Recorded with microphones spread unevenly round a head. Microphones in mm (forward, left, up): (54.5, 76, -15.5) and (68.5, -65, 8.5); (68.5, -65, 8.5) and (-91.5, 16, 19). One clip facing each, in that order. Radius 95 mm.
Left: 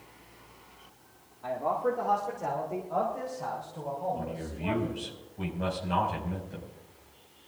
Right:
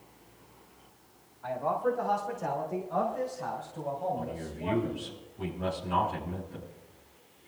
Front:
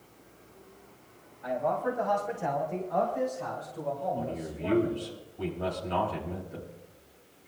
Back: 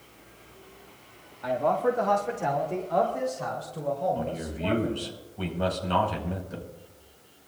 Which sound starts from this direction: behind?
A man speaking, at 1.4 s.